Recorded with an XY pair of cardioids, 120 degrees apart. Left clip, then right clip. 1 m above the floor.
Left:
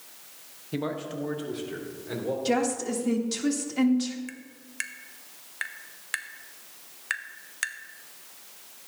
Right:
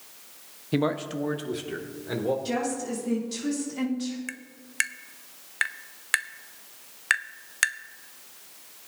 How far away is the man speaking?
About 0.8 m.